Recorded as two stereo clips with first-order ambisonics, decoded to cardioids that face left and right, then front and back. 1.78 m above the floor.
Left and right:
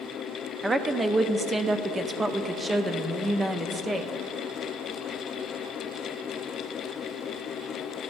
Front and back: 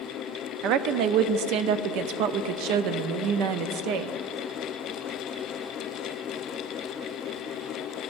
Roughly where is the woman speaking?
Behind.